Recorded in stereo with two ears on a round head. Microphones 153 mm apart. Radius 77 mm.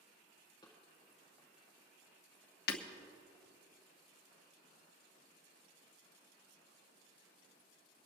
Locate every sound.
0.6 s running footsteps: 25° left (ahead or behind), 4.5 m; by 3.5 s 5° left (ahead or behind), 3 m
2.7 s breaking glass: 55° left (ahead or behind), 0.9 m